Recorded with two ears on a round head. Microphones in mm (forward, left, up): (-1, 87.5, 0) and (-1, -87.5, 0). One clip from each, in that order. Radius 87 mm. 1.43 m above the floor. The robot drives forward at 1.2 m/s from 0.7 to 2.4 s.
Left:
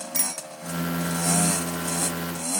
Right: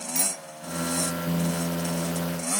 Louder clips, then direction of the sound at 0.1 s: Right 1 dB; 10° left (ahead or behind).